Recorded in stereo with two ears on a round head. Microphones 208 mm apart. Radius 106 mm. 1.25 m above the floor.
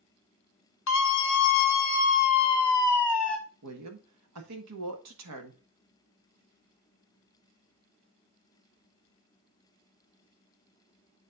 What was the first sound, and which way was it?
A scream, 60° left (ahead or behind).